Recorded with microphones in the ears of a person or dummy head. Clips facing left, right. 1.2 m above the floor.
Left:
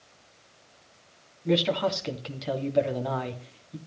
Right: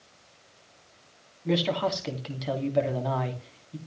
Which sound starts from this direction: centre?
A man speaking, at 1.4 s.